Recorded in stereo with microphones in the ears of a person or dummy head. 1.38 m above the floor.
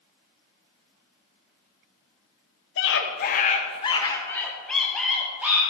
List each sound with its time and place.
2.8 s a scream: 65° left (ahead or behind), 1.1 m; by 5.6 s 5° right (ahead or behind), 2 m